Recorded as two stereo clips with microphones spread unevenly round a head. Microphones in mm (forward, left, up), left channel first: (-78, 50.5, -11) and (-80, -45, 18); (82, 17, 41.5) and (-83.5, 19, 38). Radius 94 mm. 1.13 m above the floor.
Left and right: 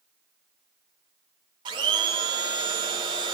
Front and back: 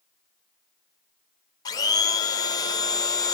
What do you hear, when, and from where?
1.6 s a blender: 55° right, 0.5 m